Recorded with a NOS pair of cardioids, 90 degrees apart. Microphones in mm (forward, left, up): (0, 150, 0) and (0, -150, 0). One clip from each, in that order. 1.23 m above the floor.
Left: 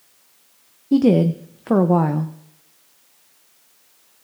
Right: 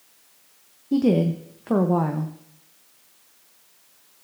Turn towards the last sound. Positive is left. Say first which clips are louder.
# left 5 dB
turn(degrees=25)